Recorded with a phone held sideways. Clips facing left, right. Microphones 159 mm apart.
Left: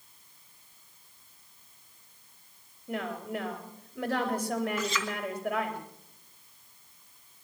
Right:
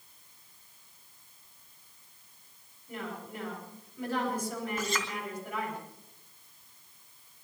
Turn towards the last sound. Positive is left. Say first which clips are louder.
# left 2 dB
turn(degrees=-45)  # may be behind; listen again after turning